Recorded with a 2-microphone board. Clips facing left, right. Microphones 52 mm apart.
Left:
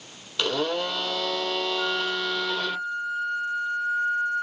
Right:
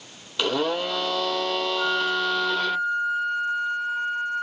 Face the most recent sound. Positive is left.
turn(degrees=-55)  # may be behind; listen again after turning